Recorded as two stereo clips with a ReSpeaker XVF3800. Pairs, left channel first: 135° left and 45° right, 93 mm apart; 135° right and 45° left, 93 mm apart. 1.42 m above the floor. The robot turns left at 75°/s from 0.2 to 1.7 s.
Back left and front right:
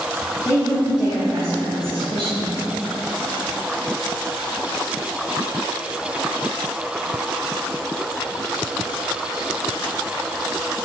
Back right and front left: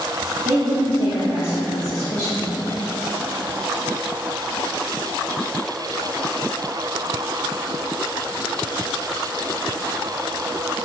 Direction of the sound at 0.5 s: 75° left.